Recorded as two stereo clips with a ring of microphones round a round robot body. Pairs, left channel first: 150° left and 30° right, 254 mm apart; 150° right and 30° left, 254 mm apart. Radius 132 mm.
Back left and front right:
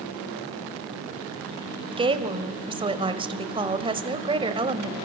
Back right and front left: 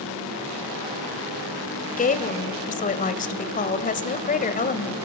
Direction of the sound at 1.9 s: 95° right.